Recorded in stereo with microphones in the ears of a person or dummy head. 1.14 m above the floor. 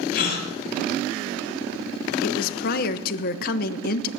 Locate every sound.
0.1 s a gasp: 55° left (ahead or behind), 2.5 m
2.2 s a woman speaking: 50° left (ahead or behind), 0.7 m